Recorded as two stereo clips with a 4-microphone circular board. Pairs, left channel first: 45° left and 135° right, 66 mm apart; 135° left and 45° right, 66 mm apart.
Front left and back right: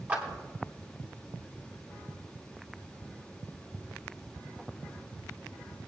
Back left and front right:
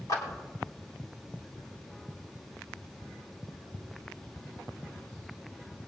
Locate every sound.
0.1 s a clap: 160° left, 3.5 m